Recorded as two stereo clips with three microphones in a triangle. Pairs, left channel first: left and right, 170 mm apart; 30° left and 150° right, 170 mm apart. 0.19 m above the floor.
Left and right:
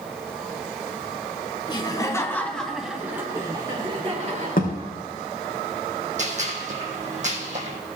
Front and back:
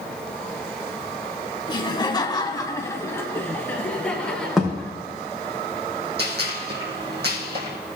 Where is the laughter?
60° left, 1.3 m; by 4.9 s 60° right, 1.8 m.